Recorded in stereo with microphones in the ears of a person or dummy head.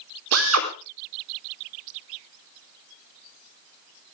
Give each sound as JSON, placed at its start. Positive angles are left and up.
{"t": 0.3, "sound": "a drill", "side_deg": -75, "distance_m": 4.0}